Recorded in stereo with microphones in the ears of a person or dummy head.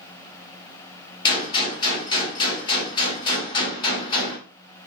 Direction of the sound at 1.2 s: 25° left (ahead or behind).